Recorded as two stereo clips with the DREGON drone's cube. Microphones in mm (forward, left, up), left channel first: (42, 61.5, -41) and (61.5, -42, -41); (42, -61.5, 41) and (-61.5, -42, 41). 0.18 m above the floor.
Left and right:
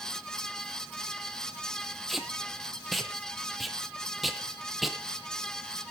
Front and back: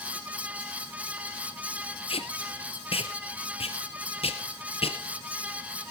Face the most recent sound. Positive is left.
turn(degrees=10)